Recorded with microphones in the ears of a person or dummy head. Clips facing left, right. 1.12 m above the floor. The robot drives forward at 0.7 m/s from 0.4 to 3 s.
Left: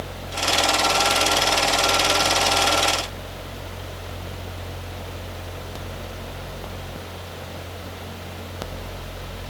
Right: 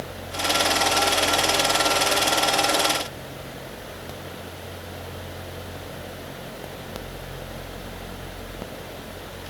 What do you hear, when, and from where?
Only background noise.